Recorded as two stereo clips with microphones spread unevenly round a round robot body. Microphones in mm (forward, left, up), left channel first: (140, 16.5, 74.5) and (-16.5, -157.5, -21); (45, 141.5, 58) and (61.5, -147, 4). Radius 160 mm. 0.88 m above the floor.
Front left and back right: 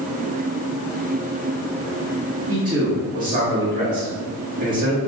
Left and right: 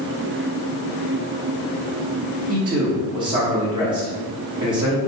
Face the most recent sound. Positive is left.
turn(degrees=-150)